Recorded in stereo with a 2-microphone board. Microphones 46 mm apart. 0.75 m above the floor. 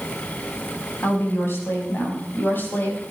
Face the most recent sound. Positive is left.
turn(degrees=40)  # may be behind; listen again after turning